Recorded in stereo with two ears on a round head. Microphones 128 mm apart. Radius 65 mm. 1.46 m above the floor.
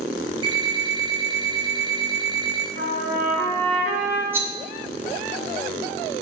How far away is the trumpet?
About 3.5 m.